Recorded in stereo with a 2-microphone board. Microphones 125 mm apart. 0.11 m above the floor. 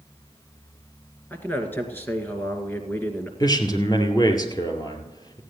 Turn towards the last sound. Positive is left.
turn(degrees=30)  # may be behind; listen again after turning